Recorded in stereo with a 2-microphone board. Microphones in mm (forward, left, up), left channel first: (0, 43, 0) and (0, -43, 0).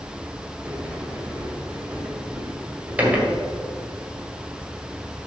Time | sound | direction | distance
0.7 | a sliding door | 15° right (ahead or behind) | 1.7 m